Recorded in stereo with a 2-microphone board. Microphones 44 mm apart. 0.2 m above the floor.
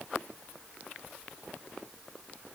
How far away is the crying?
No crying in this recording.